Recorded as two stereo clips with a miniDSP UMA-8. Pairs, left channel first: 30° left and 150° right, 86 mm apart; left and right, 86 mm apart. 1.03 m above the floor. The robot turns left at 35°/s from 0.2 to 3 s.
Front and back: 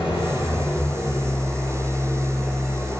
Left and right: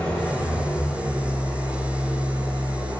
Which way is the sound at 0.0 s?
10° left.